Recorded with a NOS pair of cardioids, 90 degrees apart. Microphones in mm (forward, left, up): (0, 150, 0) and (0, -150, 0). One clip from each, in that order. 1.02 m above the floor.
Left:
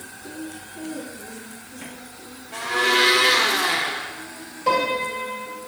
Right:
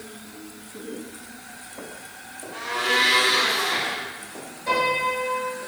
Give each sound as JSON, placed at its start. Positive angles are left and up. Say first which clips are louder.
{"t": 2.5, "sound": "a blender", "louder": "left 3 dB", "azimuth_deg": 50, "distance_m": 1.0}
{"t": 4.7, "sound": "a piano", "louder": "left 1 dB", "azimuth_deg": 65, "distance_m": 2.0}